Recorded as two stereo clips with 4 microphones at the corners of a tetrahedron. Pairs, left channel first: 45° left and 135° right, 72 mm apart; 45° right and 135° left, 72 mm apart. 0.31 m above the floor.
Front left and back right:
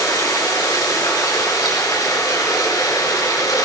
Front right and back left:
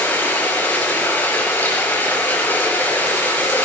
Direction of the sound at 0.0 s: 15° left.